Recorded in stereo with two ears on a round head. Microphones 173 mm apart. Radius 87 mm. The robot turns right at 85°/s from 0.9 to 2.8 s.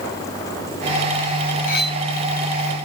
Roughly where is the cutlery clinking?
Left.